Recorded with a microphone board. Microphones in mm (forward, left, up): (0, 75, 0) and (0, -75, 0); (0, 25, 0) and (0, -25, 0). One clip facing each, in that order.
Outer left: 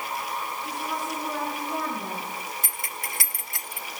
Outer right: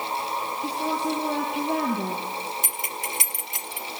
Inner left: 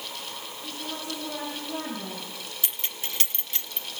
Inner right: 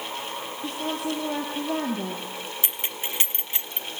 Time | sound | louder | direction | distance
0.6 | a woman speaking | outer right 5 dB, inner right 8 dB | 70° right (ahead or behind) | 3.5 m
2.6 | keys jangling | outer right 4 dB, inner right 3 dB | 20° right (ahead or behind) | 0.7 m